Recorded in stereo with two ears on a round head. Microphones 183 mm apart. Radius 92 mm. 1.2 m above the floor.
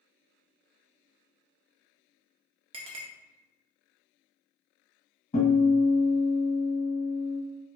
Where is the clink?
25° right (ahead or behind), 0.6 m.